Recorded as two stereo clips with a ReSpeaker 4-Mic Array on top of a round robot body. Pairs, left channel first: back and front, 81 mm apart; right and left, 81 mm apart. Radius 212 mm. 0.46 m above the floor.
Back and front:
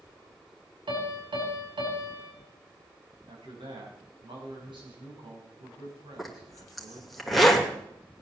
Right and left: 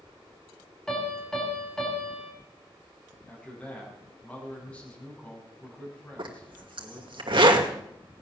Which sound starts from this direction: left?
A zipper, at 6.2 s.